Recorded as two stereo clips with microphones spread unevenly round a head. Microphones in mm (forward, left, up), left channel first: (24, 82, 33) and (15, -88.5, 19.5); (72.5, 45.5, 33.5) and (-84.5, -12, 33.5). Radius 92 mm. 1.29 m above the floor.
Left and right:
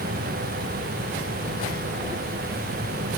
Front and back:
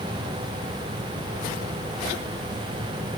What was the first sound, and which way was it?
Only background noise.